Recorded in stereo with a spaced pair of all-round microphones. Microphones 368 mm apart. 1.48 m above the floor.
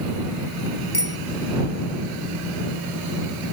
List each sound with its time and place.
0.9 s a bicycle bell: 80° left